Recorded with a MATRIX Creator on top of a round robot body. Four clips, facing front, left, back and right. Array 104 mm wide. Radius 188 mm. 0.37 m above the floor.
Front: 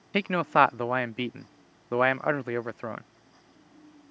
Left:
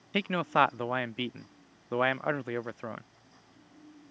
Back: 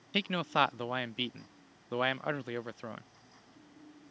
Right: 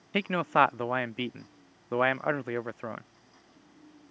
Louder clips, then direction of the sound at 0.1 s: Right 2 dB, front 8 dB; 15° right.